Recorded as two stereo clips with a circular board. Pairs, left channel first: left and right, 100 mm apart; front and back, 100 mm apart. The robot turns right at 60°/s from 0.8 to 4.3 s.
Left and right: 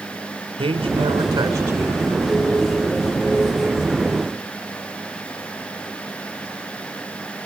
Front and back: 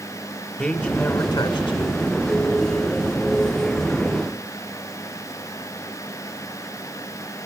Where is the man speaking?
75° right, 3.5 m; by 2.1 s straight ahead, 3.5 m.